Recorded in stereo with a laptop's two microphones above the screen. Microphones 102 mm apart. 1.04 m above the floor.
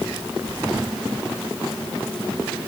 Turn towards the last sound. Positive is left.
No sound to turn to.